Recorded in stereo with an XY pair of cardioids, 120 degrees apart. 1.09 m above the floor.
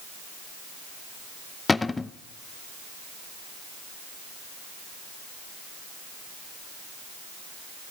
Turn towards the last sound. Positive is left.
turn(degrees=20)